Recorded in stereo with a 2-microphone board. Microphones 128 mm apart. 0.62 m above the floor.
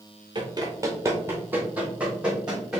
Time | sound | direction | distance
0.3 | running footsteps | 35° right (ahead or behind) | 0.8 m